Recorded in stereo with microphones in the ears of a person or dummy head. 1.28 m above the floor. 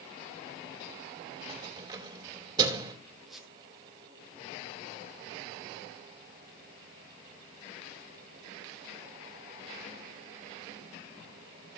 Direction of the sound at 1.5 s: 25° right (ahead or behind).